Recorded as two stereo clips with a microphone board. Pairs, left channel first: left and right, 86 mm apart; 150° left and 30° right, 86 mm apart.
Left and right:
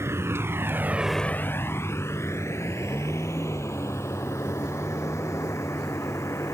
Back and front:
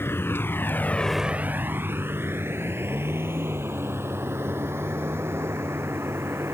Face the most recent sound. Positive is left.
turn(degrees=30)